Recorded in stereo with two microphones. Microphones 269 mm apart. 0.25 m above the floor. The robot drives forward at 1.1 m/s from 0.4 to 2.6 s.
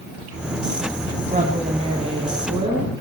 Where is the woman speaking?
30° right (ahead or behind), 2 m; by 2.9 s 20° right (ahead or behind), 3 m.